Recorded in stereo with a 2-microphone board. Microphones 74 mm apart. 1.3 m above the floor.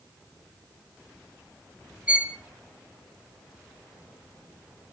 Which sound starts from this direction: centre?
A violin, at 2.1 s.